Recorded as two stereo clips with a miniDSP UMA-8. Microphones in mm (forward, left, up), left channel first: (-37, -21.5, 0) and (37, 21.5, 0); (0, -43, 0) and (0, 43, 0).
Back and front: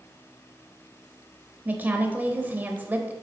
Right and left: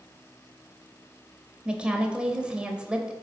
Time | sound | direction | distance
1.6 | a woman speaking | 35° left | 0.9 m